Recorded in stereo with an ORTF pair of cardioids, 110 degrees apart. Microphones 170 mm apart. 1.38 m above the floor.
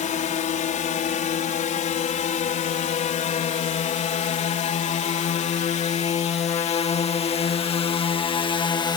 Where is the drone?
55° left; by 9.0 s 45° left.